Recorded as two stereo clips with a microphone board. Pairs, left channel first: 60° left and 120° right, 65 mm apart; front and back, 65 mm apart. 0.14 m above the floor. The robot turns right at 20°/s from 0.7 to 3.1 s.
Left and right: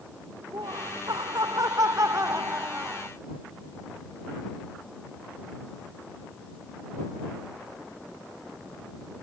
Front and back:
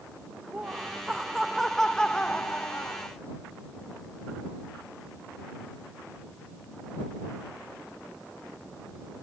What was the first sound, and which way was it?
Laughter, 105° right.